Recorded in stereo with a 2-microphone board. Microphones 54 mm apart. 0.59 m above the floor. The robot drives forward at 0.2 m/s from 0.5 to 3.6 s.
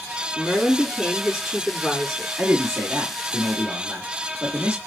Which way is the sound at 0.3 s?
Centre (ahead or behind).